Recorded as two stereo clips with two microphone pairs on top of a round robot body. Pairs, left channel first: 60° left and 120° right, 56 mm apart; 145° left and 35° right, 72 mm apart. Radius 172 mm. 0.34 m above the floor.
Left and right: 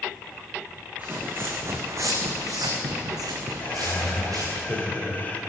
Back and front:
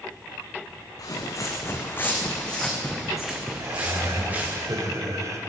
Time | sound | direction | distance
1.0 | footsteps | 175° right | 2 m
3.6 | laughter | 5° left | 3 m